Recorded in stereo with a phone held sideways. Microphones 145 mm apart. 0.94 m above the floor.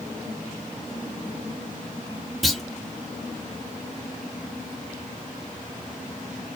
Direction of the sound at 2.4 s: Centre (ahead or behind).